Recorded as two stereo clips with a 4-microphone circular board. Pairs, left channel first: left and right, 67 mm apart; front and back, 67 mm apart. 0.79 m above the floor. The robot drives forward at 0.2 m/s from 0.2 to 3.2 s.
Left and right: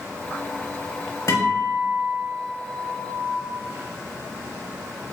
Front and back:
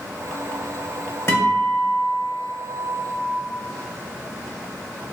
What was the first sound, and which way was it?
A guitar, 55° left.